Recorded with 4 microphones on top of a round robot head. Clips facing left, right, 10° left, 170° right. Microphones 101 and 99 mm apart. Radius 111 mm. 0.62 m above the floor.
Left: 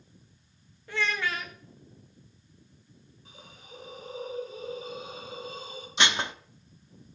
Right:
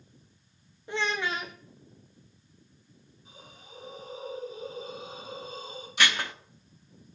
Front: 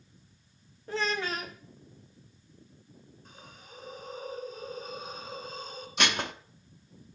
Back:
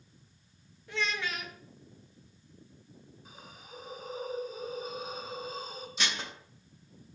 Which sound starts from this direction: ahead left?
Dishes clattering, at 6.0 s.